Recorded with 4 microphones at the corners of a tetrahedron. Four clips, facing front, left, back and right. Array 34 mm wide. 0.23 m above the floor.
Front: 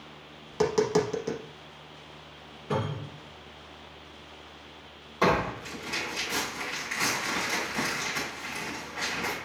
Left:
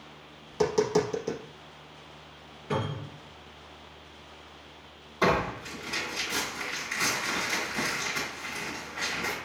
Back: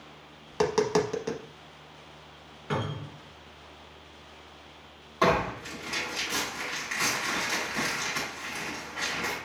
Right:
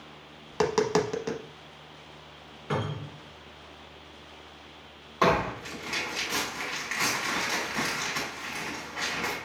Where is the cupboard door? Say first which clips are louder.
Even, front 1 dB; 135° right, 1.9 m.